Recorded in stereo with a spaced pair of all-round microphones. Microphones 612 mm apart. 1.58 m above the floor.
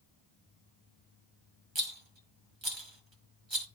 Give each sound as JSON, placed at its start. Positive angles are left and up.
{"t": 1.8, "sound": "a rattle", "side_deg": -45, "distance_m": 1.9}